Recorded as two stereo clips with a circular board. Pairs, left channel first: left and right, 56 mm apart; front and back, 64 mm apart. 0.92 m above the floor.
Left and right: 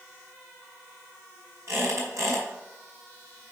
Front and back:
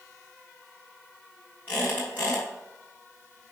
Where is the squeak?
60° right, 4.5 m.